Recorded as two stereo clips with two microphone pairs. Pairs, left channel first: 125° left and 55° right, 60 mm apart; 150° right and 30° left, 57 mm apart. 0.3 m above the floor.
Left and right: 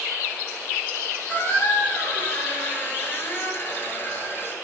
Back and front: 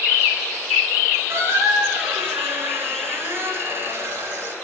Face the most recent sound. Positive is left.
turn(degrees=70)